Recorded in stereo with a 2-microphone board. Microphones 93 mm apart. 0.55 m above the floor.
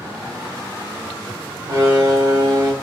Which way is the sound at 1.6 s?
45° right (ahead or behind).